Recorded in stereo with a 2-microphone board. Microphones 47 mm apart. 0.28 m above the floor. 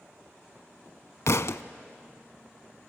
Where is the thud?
80° left, 0.6 m.